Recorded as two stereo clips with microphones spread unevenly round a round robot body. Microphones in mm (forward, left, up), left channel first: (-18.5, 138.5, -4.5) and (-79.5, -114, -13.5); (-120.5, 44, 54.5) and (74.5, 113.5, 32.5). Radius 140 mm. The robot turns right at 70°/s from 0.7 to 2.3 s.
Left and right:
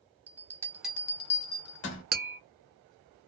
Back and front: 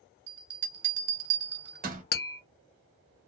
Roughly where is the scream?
I don't hear a scream.